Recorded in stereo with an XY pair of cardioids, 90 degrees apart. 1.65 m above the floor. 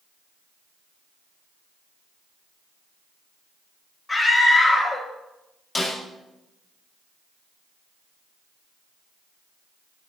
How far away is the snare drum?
About 7 m.